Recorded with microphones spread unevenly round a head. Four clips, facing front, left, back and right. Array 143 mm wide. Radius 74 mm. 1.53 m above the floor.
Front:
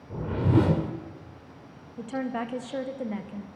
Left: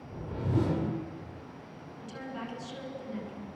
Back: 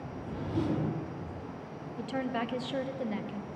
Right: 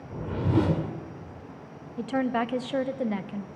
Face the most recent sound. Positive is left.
turn(degrees=-85)